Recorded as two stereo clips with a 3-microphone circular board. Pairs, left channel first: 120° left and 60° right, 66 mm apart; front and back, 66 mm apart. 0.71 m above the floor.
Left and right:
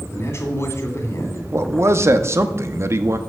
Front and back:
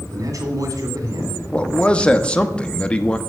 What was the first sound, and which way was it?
A man speaking, 165° left.